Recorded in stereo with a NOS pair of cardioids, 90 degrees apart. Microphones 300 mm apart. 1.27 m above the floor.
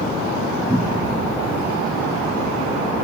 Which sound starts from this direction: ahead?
A cupboard door, at 0.7 s.